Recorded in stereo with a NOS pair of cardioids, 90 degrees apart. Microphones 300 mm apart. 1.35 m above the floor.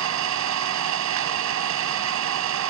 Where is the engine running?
70° right, 1.1 m.